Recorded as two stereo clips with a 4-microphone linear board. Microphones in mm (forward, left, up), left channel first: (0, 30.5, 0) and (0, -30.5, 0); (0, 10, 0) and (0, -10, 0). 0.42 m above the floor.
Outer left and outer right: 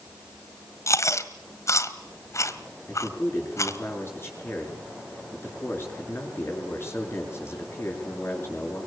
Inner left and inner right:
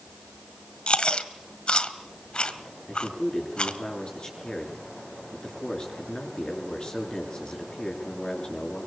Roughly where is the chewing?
Left.